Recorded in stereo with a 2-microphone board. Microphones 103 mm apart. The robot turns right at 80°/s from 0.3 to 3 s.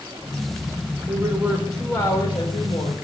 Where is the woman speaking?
50° right, 3.5 m; by 3.0 s 100° left, 3.5 m.